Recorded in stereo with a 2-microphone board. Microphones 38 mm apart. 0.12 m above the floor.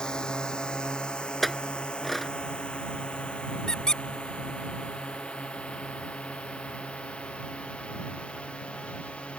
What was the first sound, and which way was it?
A drone, 20° left (ahead or behind).